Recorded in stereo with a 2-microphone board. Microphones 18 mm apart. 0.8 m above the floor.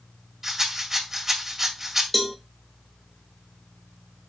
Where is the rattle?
15° right (ahead or behind), 2.5 m.